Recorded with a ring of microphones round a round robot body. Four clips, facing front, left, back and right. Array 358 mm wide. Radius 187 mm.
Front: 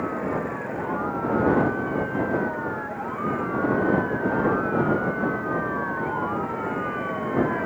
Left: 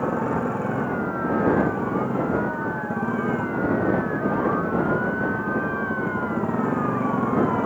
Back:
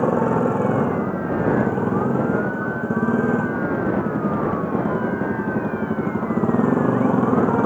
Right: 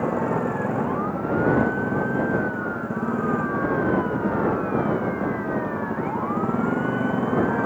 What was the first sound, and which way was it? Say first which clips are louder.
A motorcycle: right 1 dB, back 8 dB; straight behind.